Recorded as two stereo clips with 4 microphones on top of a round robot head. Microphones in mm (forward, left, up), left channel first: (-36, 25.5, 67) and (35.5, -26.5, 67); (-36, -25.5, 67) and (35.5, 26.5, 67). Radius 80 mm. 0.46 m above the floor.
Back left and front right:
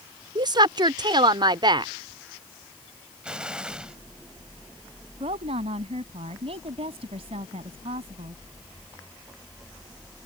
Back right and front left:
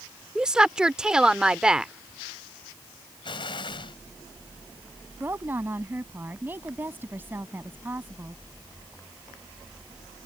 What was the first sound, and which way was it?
A woman speaking, 45° right.